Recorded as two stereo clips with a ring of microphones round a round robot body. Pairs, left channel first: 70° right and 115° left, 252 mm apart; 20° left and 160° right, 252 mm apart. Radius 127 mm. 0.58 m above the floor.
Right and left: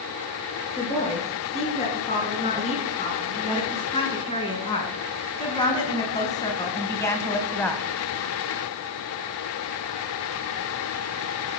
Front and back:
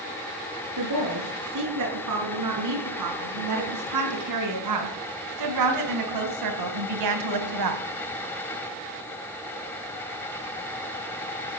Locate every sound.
0.8 s a woman speaking: 135° right, 7.5 m; by 7.8 s 155° right, 2.5 m